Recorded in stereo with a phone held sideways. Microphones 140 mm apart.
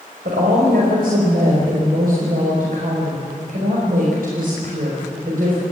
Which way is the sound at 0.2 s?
85° right.